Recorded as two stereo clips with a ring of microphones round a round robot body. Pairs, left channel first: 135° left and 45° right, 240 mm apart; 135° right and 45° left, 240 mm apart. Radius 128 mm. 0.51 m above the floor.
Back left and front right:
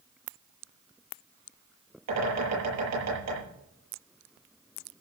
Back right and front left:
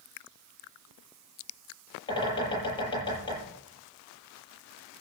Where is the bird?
65° right, 9 m.